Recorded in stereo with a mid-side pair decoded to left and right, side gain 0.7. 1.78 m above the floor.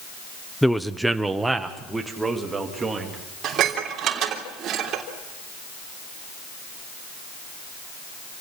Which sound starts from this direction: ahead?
A man speaking, at 0.6 s.